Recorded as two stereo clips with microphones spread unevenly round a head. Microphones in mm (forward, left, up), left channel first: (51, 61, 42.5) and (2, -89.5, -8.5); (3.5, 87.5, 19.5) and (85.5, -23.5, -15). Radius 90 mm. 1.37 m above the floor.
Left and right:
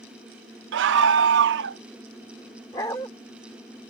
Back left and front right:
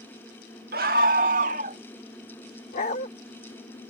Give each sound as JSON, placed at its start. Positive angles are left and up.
{"t": 0.7, "sound": "a scream", "azimuth_deg": -100}
{"t": 2.7, "sound": "a dog barking", "azimuth_deg": 130}